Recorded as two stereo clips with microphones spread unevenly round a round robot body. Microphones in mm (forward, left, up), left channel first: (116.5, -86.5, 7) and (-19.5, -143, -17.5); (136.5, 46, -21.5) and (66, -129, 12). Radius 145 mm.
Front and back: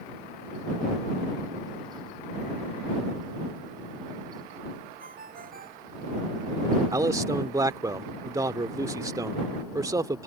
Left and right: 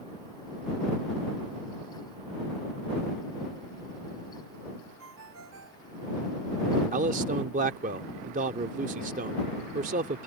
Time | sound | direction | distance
5.0 | a ringtone | 140° right | ?
6.9 | a man speaking | 140° right | ?